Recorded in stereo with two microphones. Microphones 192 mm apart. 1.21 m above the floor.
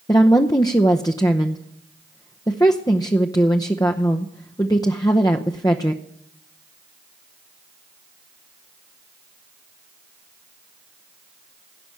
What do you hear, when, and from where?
0.1 s a woman speaking: 20° left (ahead or behind), 0.8 m